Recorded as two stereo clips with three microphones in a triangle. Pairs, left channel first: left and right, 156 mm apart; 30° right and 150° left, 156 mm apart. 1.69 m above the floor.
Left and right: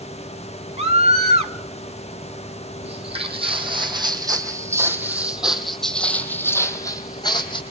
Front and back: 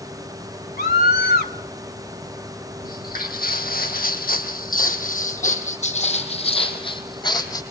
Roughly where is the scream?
Ahead right.